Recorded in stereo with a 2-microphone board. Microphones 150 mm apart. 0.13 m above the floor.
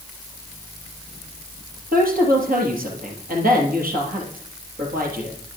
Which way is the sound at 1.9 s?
65° right (ahead or behind).